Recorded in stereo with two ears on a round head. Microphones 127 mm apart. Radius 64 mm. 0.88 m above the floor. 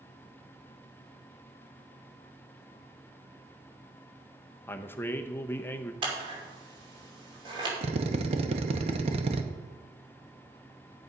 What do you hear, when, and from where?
4.7 s a man speaking: 15° left (ahead or behind), 0.6 m
6.0 s scissors: 35° right (ahead or behind), 2.5 m
7.8 s a drill: 45° right (ahead or behind), 0.8 m